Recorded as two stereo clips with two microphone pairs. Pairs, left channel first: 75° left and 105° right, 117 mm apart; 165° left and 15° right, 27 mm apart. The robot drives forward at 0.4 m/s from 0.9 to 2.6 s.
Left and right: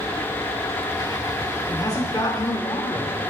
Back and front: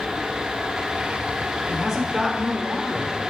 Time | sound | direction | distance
1.7 | a man speaking | 50° left | 1.0 m